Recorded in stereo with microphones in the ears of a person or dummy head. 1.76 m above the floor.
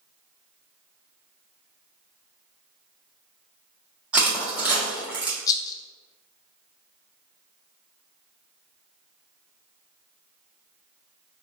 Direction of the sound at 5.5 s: 30° left (ahead or behind).